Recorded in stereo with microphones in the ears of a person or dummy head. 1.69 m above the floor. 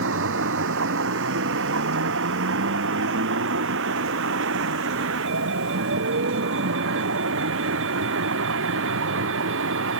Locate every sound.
0.0 s a vehicle: 80° right; by 10.0 s 85° right